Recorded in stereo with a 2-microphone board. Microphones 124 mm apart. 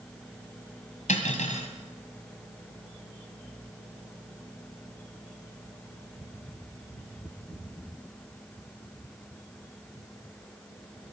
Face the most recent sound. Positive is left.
turn(degrees=75)  # may be behind; listen again after turning